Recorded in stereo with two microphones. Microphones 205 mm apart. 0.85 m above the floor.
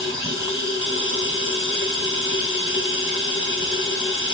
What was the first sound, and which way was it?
Running water, 80° left.